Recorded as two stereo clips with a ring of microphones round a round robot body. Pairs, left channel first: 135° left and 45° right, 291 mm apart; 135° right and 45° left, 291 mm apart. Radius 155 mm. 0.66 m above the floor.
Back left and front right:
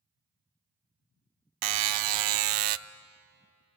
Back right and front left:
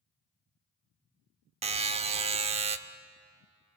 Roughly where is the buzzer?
Ahead right.